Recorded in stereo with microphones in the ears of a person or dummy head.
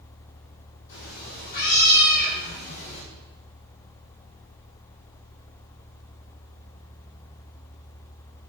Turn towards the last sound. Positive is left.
turn(degrees=40)  # may be behind; listen again after turning